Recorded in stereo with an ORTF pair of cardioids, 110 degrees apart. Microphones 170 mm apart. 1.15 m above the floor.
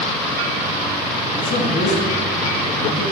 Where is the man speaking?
70° left, 2.5 m.